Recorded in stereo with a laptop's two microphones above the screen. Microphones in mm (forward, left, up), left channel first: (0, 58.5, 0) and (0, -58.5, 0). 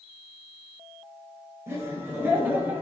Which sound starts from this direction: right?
Laughter, at 1.7 s.